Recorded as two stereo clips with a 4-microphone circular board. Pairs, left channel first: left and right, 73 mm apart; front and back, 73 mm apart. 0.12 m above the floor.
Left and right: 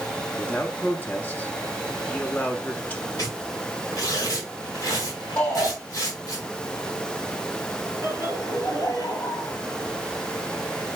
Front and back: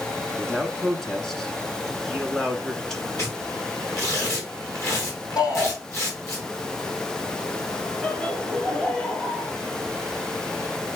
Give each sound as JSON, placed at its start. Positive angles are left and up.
{"t": 0.4, "sound": "a man speaking", "azimuth_deg": 80, "distance_m": 1.2}
{"t": 3.2, "sound": "tearing paper", "azimuth_deg": 50, "distance_m": 3.5}
{"t": 5.4, "sound": "a shout", "azimuth_deg": 20, "distance_m": 4.5}
{"t": 8.0, "sound": "laughter", "azimuth_deg": 75, "distance_m": 2.5}